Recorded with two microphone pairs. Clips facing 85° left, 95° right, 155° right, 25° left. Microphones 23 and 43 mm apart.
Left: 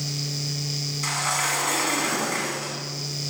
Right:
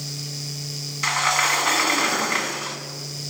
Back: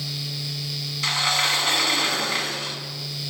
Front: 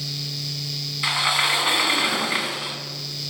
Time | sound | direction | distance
1.0 | a sliding door | 45° right | 0.5 m